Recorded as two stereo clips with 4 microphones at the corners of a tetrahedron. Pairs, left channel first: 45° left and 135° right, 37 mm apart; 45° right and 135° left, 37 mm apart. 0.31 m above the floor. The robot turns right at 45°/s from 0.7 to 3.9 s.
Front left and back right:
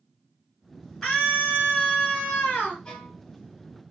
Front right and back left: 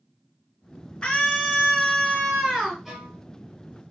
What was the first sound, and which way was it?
A scream, 20° right.